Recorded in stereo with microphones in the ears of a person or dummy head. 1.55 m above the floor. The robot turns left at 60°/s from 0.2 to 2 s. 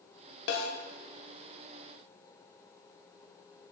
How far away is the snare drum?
About 0.6 m.